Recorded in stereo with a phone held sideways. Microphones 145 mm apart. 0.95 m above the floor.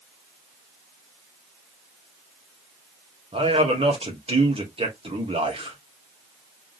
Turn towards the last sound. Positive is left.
turn(degrees=-45)  # may be behind; listen again after turning